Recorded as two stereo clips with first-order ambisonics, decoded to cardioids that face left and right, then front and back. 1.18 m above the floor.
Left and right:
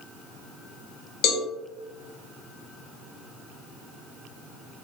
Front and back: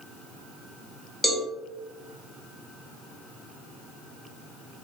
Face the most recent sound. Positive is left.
turn(degrees=80)